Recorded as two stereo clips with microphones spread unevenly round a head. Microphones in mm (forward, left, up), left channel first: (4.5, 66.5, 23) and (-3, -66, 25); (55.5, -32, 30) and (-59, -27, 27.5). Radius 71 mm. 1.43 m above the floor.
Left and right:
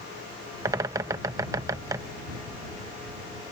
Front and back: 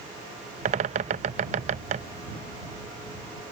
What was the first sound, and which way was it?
A bird, 160° right.